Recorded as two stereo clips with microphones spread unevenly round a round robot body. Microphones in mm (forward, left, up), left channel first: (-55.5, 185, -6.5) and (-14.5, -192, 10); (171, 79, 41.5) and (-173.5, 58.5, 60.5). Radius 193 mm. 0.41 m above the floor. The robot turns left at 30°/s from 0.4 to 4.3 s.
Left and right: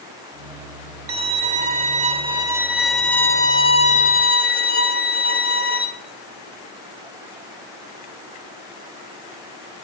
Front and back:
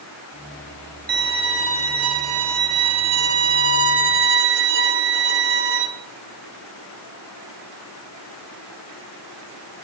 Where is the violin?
120° right, 1.4 m; by 5.9 s 140° left, 1.4 m.